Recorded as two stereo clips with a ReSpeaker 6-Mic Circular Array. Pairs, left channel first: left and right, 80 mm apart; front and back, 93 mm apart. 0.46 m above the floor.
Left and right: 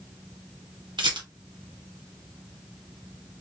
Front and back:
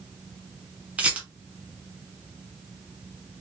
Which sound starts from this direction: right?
A rattle, at 1.0 s.